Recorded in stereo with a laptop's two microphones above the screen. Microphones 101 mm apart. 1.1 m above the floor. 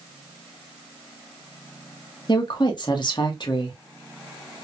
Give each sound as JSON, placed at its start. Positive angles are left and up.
{"t": 2.3, "sound": "a woman speaking", "side_deg": 45, "distance_m": 0.9}